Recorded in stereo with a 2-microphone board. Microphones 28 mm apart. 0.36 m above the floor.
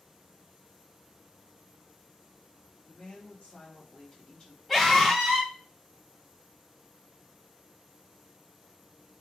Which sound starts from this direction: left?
A woman speaking, at 2.9 s.